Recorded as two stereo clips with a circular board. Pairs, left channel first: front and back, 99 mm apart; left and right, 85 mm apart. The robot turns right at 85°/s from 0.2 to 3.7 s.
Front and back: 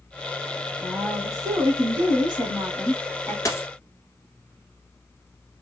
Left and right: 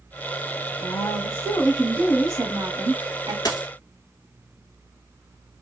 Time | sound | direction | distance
0.8 | a woman speaking | 90° left | 2.5 m
3.5 | a dropped coin | 55° left | 1.3 m